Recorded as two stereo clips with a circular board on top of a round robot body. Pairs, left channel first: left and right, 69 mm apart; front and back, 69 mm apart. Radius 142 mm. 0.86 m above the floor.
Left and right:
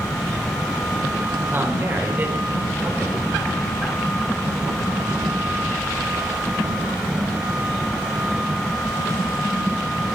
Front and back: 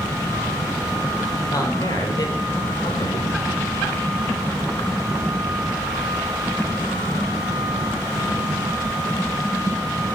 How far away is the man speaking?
About 4 m.